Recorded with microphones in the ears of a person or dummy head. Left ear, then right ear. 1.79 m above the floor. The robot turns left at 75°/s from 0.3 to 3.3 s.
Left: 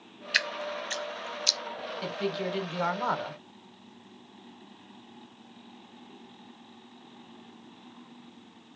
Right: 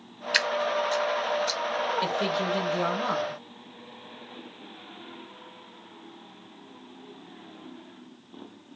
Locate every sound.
0.3 s dripping: centre (ahead or behind), 0.7 m; by 1.6 s 75° left (ahead or behind), 0.7 m
2.0 s a man speaking: 165° right, 1.5 m; by 3.4 s 100° left, 1.5 m